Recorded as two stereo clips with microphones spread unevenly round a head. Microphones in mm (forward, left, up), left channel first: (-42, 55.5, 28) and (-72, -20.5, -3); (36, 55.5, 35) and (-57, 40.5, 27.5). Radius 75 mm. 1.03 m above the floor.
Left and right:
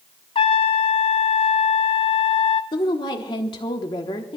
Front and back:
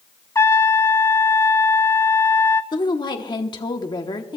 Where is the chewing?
No chewing in this recording.